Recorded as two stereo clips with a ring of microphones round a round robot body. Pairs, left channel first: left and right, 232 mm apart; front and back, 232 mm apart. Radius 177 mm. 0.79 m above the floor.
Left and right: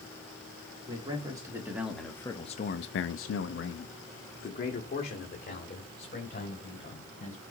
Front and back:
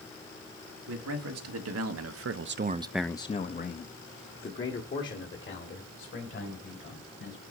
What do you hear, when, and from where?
0.9 s a man speaking: 165° right, 1.6 m; by 7.4 s 35° left, 4 m